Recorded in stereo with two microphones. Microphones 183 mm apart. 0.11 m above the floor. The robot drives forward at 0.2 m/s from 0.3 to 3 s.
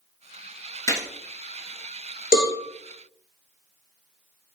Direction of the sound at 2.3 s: 50° left (ahead or behind).